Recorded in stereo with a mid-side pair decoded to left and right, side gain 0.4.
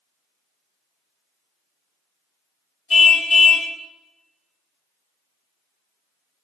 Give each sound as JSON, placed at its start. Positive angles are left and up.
{"t": 2.9, "sound": "a car horn", "azimuth_deg": 50, "distance_m": 3.5}